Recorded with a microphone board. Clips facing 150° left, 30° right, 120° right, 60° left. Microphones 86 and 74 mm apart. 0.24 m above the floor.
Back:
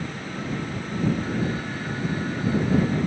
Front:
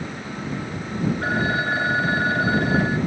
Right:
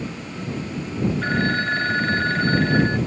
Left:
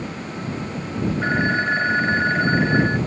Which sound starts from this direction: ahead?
A phone ringing, at 1.2 s.